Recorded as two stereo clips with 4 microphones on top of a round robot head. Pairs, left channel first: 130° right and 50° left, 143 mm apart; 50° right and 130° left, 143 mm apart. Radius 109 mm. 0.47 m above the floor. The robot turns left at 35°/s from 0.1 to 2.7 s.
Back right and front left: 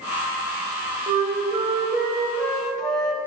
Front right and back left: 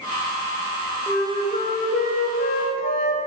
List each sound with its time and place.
1.1 s a flute: 15° left, 1.3 m; by 3.2 s 45° right, 1.3 m